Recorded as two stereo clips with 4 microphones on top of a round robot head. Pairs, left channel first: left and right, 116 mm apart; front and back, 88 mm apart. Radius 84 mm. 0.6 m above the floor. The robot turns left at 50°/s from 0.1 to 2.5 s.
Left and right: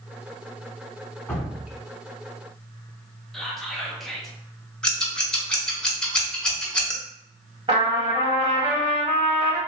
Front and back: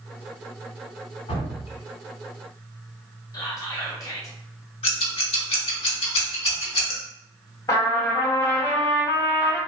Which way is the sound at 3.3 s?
5° left.